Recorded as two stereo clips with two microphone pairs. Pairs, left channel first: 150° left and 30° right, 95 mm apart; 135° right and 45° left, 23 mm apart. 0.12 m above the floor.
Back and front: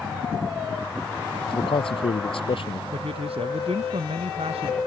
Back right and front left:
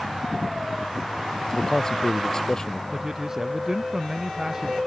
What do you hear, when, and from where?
1.5 s a man speaking: 165° left
2.9 s a man speaking: 25° right